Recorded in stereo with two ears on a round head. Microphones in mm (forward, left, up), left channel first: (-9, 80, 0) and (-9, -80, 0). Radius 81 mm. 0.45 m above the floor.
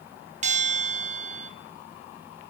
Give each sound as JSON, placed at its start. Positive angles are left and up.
{"t": 0.4, "sound": "a bell", "side_deg": -40, "distance_m": 2.0}